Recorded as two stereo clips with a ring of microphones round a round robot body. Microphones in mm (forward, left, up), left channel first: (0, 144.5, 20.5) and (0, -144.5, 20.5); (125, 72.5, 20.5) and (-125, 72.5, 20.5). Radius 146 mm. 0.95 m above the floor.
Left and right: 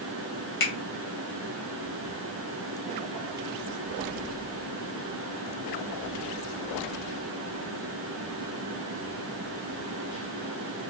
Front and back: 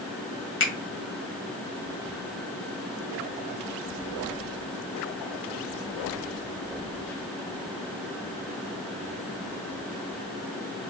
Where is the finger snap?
35° left, 1.6 m.